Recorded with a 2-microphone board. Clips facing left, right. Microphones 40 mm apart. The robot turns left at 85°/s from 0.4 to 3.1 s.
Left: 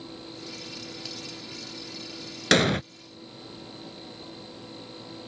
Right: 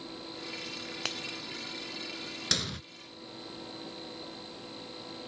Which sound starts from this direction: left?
An explosion, at 2.5 s.